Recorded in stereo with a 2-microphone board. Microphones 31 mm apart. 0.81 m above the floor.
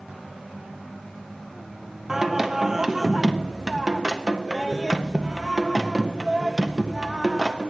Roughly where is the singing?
Centre.